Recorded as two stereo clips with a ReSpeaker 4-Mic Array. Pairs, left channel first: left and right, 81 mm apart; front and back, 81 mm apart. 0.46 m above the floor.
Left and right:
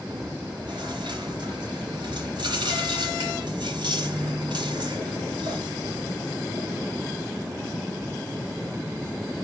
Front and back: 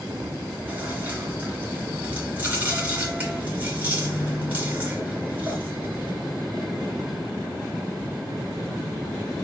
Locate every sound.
0.1 s chewing: 115° right, 3.5 m